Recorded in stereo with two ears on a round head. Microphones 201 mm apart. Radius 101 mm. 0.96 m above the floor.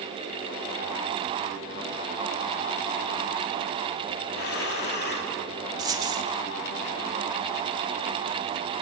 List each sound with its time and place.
4.3 s breathing: 50° left (ahead or behind), 2 m
5.8 s a dropped coin: 15° right (ahead or behind), 1.2 m